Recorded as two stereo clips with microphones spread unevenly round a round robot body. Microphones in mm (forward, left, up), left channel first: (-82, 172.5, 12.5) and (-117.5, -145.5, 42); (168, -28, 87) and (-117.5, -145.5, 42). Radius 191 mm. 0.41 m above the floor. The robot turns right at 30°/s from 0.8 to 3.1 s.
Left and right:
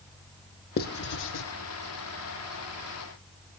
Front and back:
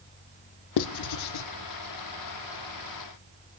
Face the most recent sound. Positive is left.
turn(degrees=100)